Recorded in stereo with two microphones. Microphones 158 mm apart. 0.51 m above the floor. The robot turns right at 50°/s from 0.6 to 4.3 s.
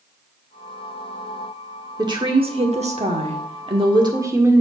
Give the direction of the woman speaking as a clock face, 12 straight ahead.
5 o'clock.